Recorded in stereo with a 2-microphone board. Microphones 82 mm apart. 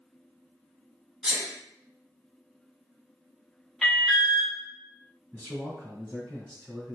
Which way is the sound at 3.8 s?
Centre (ahead or behind).